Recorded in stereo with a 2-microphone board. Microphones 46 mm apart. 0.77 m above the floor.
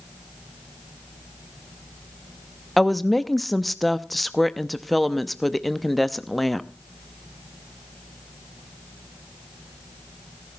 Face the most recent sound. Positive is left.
turn(degrees=0)  # may be behind; listen again after turning